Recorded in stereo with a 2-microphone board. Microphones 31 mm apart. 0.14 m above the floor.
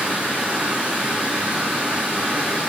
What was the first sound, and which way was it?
Running water, 55° right (ahead or behind).